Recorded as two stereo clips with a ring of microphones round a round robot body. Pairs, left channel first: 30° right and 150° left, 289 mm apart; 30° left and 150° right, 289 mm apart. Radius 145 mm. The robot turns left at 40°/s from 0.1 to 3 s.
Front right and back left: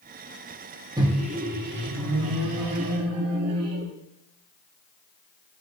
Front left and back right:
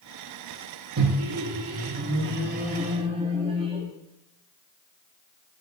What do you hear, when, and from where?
1.0 s a microwave: 135° right, 0.7 m; by 3.9 s 140° left, 0.7 m